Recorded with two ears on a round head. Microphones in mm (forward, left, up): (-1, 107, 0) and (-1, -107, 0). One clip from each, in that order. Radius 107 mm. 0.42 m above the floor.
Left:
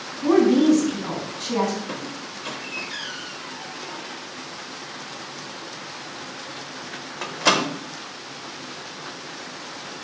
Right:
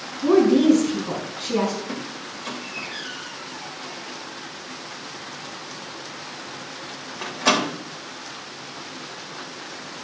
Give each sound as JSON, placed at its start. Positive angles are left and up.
{"t": 0.2, "sound": "a woman speaking", "side_deg": 15, "distance_m": 4.5}
{"t": 1.9, "sound": "a squeak", "side_deg": 15, "distance_m": 0.8}